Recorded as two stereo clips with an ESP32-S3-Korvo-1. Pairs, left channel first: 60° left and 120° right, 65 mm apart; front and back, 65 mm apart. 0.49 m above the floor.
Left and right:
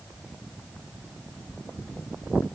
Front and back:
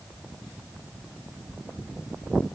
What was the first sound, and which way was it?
Only background noise.